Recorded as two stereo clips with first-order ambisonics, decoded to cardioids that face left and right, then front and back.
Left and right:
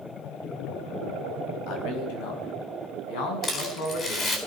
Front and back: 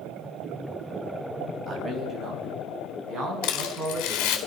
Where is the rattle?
20° left, 4 m.